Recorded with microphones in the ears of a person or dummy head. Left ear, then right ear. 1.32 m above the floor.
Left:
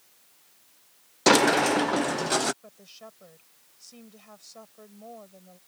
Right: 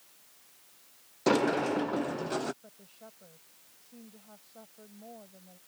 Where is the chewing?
No chewing in this recording.